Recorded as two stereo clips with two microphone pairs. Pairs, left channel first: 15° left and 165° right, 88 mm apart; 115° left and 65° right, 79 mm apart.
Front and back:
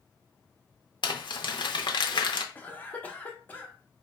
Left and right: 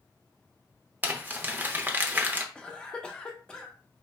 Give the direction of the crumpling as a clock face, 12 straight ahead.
12 o'clock.